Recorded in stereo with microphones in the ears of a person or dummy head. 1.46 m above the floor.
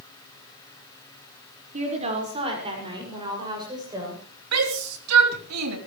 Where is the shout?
80° right, 3.5 m.